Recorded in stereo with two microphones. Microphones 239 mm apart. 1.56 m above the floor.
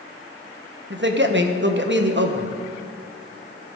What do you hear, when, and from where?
0.9 s a man speaking: 50° right (ahead or behind), 1.3 m